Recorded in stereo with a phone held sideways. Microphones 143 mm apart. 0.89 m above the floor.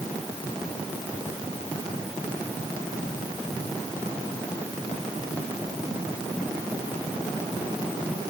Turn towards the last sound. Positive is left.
No sound to turn to.